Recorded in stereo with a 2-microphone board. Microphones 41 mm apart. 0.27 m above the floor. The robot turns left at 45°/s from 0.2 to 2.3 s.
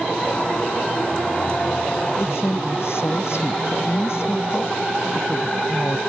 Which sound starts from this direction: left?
A woman speaking, at 2.2 s.